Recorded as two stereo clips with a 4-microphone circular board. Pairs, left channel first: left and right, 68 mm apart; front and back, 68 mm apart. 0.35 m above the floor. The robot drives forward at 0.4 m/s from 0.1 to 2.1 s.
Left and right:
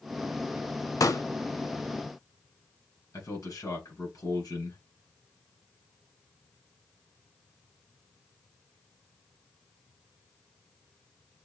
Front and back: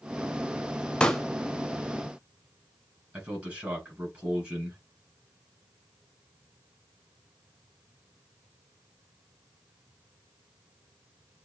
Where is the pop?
75° left, 0.6 m; by 1.2 s 85° left, 0.6 m.